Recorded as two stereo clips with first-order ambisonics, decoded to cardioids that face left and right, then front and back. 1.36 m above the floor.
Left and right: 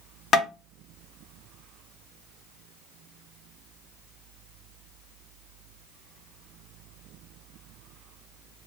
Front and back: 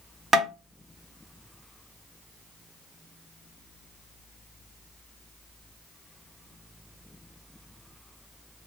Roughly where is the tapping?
Behind left.